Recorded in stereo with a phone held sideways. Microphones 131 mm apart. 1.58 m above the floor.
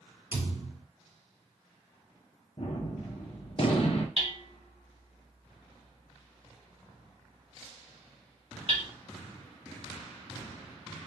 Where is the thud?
40° left (ahead or behind), 2.5 m.